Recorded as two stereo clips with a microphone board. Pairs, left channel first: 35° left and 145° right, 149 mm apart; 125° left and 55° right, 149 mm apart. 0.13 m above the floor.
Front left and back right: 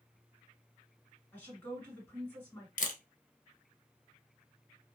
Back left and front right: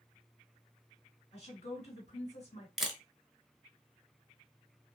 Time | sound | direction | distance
1.3 | a woman speaking | 105° left | 2.5 m
2.8 | a camera shutter | 30° left | 0.7 m